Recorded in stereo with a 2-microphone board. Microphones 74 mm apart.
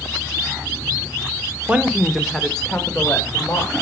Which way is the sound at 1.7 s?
20° right (ahead or behind).